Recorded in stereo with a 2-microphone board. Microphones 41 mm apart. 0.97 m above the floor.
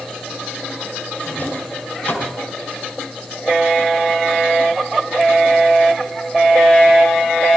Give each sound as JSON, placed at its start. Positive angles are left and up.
{"t": 1.2, "sound": "a drawer", "side_deg": 50, "distance_m": 3.0}